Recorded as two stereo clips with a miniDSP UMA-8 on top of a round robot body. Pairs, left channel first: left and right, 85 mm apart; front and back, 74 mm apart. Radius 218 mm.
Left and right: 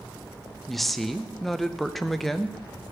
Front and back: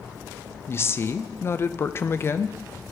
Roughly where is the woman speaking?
Ahead.